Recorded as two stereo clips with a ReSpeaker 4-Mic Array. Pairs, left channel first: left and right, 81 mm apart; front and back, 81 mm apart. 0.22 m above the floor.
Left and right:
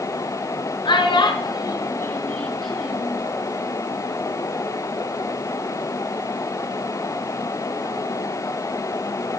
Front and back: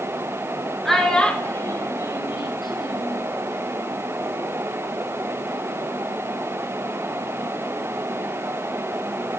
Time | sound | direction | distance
0.8 | a child speaking | 85° left | 1.9 m